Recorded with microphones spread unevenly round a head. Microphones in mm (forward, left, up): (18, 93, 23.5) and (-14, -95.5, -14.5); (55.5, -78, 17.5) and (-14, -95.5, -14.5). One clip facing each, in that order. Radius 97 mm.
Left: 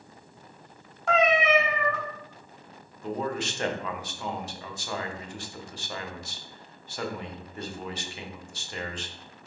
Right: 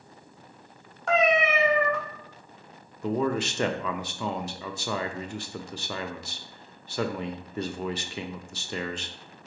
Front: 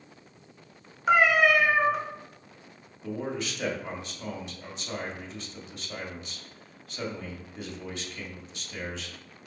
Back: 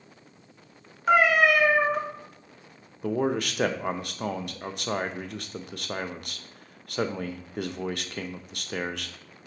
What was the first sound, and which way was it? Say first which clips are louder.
A cat meowing: even, back 1 dB; 20° left.